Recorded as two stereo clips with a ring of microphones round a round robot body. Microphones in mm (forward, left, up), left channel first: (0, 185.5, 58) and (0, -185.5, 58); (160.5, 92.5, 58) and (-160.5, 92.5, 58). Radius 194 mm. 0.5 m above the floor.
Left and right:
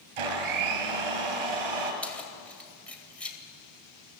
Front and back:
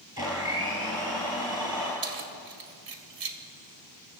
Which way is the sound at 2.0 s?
175° left.